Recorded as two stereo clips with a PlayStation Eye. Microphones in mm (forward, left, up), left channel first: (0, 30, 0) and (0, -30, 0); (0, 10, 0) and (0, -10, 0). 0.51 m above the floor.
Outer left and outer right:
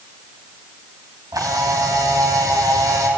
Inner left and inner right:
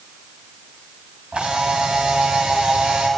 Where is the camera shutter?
75° right (ahead or behind), 3.5 m.